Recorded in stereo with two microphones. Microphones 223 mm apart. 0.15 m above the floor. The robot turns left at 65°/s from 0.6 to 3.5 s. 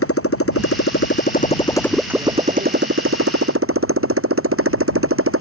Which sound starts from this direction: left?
A motorcycle, at 0.0 s.